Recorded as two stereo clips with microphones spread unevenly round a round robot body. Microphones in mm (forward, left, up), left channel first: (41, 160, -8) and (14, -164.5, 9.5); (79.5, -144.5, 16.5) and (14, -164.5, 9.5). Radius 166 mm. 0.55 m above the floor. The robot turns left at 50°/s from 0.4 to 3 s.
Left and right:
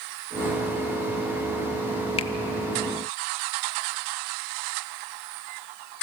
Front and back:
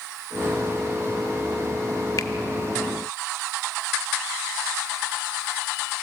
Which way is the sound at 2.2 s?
25° left.